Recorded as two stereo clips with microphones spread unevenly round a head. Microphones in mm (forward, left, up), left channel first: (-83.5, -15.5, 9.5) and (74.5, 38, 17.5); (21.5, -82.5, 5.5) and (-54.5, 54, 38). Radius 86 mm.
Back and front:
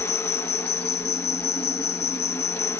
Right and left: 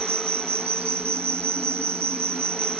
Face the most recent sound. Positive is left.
turn(degrees=170)